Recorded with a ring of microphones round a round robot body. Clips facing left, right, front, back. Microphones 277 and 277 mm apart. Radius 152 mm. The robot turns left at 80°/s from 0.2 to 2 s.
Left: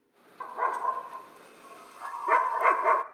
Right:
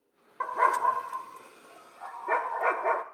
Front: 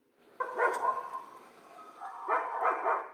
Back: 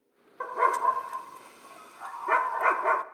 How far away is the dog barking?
About 0.6 m.